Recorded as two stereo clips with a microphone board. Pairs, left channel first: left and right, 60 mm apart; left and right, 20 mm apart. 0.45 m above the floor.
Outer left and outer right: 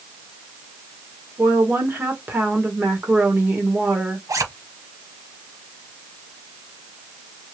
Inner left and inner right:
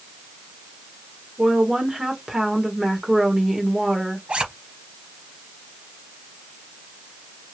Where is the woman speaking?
40° right (ahead or behind), 1.5 m.